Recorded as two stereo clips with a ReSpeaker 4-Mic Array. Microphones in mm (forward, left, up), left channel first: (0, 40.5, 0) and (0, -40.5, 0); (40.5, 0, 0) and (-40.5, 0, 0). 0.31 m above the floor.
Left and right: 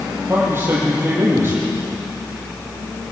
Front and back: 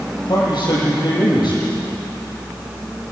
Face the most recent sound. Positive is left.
turn(degrees=-30)